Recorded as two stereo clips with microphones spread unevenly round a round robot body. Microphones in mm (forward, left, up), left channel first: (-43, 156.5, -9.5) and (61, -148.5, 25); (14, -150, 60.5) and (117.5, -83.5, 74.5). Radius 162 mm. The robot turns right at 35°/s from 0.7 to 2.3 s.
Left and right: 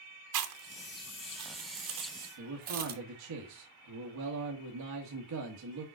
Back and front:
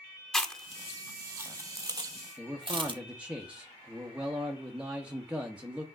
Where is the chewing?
70° right, 1.3 m; by 3.0 s 10° right, 1.3 m.